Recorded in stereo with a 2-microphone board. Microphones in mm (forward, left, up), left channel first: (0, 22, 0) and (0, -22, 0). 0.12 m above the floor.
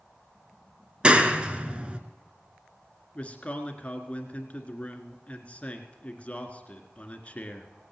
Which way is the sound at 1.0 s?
25° right (ahead or behind).